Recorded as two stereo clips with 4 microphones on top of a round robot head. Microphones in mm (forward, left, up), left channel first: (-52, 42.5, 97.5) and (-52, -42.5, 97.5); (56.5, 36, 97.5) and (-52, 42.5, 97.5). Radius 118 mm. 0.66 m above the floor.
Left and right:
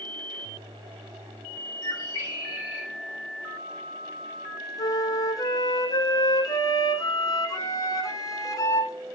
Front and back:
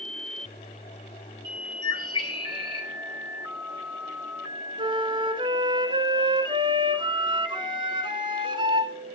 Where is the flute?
135° left, 1.5 m.